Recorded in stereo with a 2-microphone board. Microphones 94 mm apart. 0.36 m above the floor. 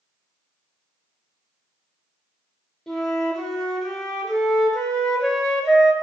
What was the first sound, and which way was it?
A flute, centre (ahead or behind).